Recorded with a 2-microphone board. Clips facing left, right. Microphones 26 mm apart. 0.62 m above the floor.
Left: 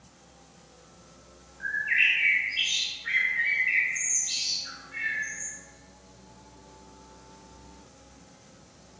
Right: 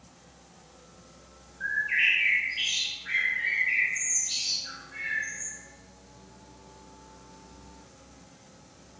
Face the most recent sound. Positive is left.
turn(degrees=60)  # may be behind; listen again after turning